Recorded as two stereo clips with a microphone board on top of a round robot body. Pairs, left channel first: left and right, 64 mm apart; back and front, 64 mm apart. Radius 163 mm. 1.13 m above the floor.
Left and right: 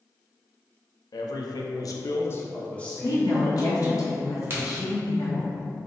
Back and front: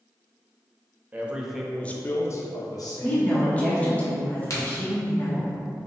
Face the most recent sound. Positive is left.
turn(degrees=-145)